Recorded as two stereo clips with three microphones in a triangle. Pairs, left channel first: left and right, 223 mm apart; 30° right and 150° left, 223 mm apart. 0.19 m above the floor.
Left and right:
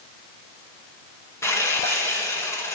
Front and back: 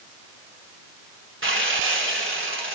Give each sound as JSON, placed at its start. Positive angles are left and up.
{"t": 1.4, "sound": "sawing", "azimuth_deg": 165, "distance_m": 1.7}